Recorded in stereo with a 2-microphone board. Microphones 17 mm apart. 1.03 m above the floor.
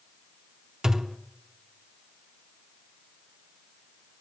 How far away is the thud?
About 0.7 m.